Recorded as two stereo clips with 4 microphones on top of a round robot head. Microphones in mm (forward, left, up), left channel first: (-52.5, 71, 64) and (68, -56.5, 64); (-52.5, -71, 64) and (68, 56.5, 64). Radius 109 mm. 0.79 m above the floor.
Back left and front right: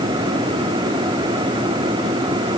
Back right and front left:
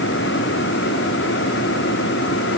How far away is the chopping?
I don't hear chopping.